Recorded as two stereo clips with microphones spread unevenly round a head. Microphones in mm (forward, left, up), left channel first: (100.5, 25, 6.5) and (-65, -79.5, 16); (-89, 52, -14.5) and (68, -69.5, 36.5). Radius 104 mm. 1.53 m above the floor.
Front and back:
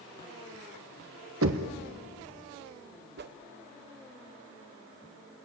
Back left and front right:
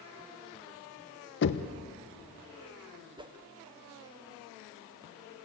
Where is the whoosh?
110° right, 1.2 m.